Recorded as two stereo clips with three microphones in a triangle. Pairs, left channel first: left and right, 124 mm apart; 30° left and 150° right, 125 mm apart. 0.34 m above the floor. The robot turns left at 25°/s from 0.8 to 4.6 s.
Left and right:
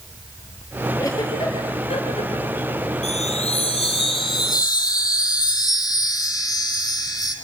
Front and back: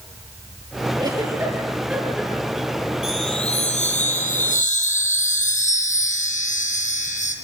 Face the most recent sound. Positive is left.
turn(degrees=30)